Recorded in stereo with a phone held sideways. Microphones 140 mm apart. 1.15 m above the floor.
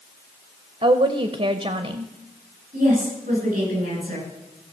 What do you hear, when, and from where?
0.8 s a woman speaking: 50° right (ahead or behind), 0.8 m
2.7 s a woman speaking: 70° right (ahead or behind), 8 m